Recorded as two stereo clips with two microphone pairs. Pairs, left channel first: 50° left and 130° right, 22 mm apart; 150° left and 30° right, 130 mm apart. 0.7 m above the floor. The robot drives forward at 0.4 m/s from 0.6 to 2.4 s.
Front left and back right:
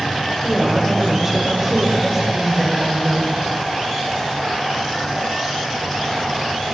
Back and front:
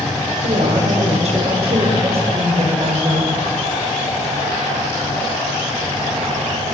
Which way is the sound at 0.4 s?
50° right.